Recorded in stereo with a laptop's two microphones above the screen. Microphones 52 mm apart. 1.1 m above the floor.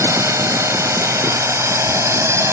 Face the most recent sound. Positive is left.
turn(degrees=-65)  # may be behind; listen again after turning